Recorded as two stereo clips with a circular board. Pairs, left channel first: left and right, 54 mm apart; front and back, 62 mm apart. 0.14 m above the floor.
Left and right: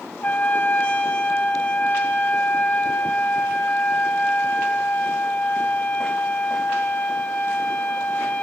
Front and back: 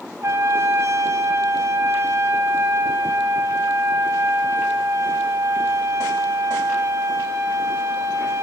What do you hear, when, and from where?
0.2 s a trumpet: 150° left, 2 m